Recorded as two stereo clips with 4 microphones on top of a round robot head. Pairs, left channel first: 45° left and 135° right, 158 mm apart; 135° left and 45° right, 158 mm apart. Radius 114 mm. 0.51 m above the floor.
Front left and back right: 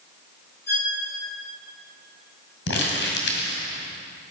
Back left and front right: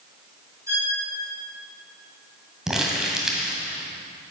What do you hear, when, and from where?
0.7 s a violin: 30° left, 5 m
2.7 s crumpling: 40° left, 2 m